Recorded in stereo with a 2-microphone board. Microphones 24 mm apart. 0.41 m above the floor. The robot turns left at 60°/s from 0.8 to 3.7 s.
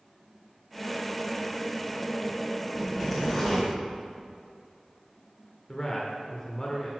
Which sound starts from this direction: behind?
A zipper, at 2.8 s.